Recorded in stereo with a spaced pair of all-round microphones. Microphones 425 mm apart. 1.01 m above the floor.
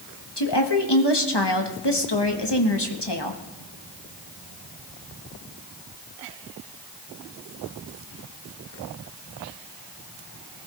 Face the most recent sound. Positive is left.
turn(degrees=65)  # may be behind; listen again after turning